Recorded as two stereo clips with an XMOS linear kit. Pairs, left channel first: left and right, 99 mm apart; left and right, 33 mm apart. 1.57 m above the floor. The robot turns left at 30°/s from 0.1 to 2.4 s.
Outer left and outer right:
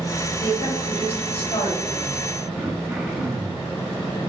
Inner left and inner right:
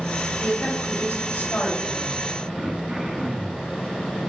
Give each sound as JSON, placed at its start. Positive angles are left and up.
{"t": 0.4, "sound": "a woman speaking", "azimuth_deg": 125, "distance_m": 3.0}
{"t": 2.5, "sound": "throat clearing", "side_deg": -5, "distance_m": 1.3}